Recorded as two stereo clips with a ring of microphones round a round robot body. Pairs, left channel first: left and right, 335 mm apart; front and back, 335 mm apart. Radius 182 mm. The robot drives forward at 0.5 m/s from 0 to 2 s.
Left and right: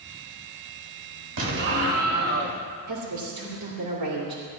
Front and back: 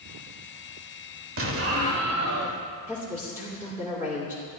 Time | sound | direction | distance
1.4 | an explosion | 125° right | 1.3 m
2.9 | a woman speaking | 95° right | 2.5 m